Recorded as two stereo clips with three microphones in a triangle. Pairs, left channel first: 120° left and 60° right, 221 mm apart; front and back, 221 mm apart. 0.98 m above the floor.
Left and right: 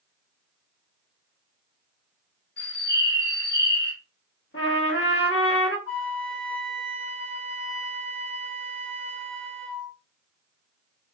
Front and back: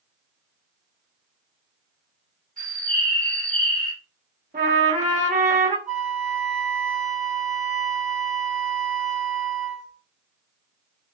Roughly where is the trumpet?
Behind left.